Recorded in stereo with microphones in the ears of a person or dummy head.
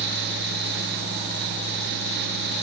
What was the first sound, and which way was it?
Only background noise.